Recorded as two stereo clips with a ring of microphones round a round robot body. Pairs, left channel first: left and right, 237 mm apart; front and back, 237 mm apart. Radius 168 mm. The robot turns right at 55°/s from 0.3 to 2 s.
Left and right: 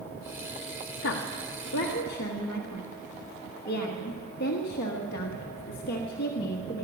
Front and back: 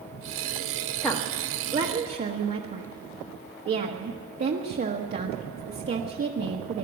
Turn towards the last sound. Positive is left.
turn(degrees=140)